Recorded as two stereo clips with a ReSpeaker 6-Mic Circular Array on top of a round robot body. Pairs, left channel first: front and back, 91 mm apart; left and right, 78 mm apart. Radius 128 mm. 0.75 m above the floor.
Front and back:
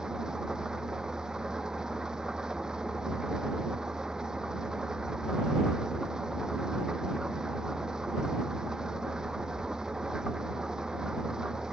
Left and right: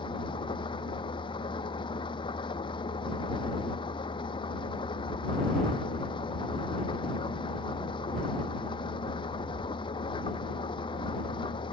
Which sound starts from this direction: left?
An engine running, at 0.0 s.